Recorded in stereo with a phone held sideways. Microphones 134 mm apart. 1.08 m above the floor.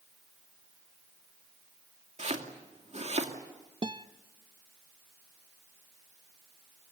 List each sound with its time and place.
2.2 s chopping: 55° right (ahead or behind), 2.5 m
3.8 s a guitar: 35° right (ahead or behind), 0.7 m